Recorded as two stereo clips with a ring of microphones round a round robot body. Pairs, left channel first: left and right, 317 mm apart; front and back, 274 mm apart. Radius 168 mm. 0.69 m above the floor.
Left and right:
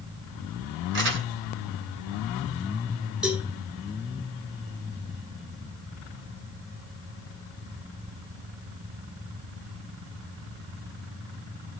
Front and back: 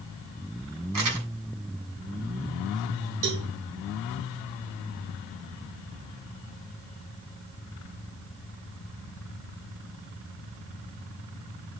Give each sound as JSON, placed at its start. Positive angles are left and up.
{"t": 0.9, "sound": "crumpling", "azimuth_deg": -145, "distance_m": 3.0}
{"t": 3.2, "sound": "a cowbell", "azimuth_deg": -175, "distance_m": 3.0}